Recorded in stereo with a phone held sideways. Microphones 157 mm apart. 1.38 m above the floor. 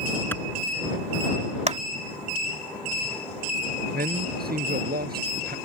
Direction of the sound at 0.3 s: 15° left (ahead or behind).